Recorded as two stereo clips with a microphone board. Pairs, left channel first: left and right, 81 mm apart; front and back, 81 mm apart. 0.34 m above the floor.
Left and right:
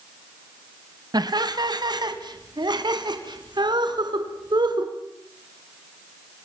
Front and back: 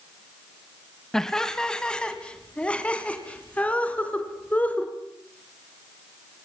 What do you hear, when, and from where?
1.1 s laughter: 85° right, 1.6 m; by 4.9 s 70° right, 3.5 m